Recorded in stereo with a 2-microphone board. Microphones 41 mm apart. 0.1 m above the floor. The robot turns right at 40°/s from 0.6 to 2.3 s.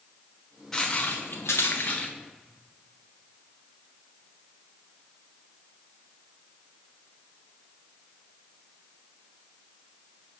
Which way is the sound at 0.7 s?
15° left (ahead or behind).